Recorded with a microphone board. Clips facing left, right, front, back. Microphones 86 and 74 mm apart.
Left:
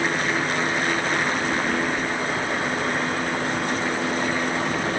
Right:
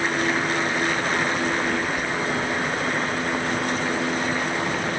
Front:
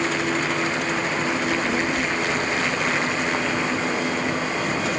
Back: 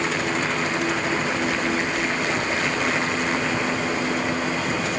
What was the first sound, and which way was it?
A child speaking, 130° left.